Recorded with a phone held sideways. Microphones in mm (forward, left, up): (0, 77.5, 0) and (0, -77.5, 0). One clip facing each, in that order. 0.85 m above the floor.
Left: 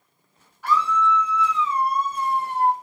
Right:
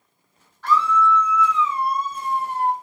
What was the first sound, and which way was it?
A scream, 10° left (ahead or behind).